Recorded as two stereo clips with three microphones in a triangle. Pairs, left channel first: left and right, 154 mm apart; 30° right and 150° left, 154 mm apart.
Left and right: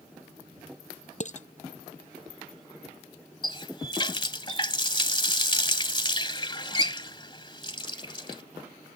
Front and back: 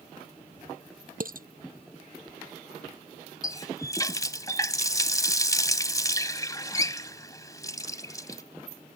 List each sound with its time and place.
1.2 s dishes clattering: 130° left
3.4 s a running tap: 35° left